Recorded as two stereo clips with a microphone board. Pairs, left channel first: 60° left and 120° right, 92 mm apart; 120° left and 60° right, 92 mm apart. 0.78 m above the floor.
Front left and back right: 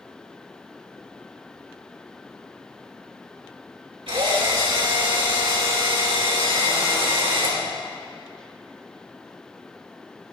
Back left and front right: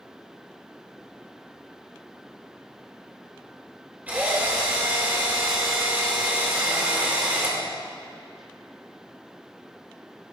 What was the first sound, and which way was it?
A drill, 130° right.